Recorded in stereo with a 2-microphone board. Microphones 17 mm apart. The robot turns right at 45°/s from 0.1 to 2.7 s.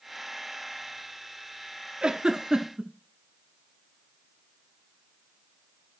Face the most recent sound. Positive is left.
turn(degrees=-60)  # may be behind; listen again after turning